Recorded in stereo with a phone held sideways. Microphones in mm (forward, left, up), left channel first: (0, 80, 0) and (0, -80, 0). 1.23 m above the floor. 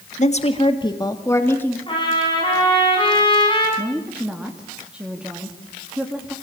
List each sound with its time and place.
0.2 s a woman speaking: 50° left (ahead or behind), 1.7 m; by 1.8 s 10° left (ahead or behind), 2.5 m
1.9 s a trumpet: 30° left (ahead or behind), 9.5 m
3.8 s a woman speaking: 5° right (ahead or behind), 2.5 m